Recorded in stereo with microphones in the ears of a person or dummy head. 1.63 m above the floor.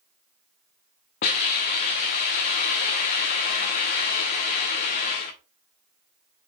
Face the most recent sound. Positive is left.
turn(degrees=20)  # may be behind; listen again after turning